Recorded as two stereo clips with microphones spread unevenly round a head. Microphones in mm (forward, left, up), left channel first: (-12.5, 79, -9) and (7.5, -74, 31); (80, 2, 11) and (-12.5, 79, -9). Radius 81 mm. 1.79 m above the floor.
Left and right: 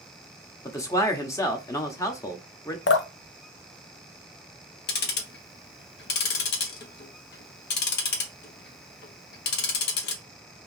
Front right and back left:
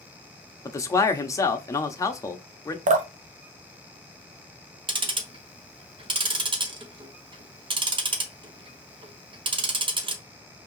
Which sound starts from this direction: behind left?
Dripping, at 2.9 s.